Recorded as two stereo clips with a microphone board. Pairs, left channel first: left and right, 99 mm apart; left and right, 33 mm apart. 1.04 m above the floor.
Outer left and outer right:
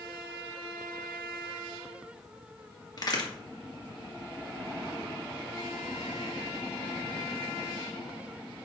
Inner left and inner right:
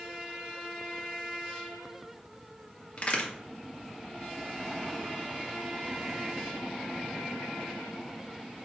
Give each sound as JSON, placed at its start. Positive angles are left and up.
{"t": 3.0, "sound": "a crack", "side_deg": 40, "distance_m": 2.0}